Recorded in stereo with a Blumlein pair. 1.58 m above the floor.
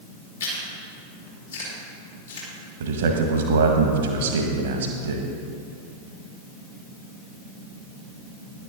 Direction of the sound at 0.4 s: 65° left.